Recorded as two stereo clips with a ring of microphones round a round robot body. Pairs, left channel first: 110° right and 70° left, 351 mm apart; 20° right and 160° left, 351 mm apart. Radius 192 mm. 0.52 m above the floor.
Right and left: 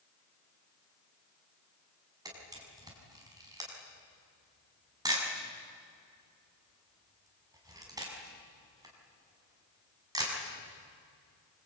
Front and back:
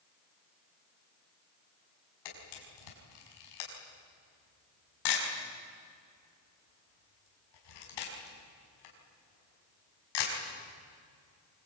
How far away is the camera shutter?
About 6 m.